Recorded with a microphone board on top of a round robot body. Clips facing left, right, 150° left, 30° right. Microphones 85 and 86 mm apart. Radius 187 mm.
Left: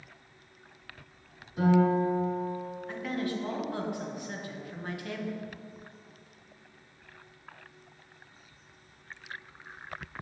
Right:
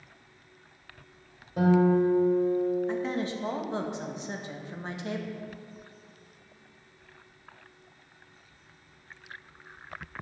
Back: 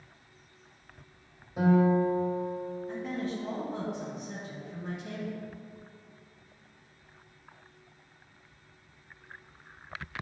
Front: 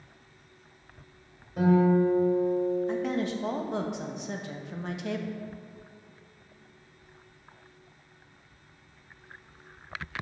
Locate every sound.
1.6 s a guitar: 125° right, 1.6 m
2.9 s a woman speaking: 25° right, 0.9 m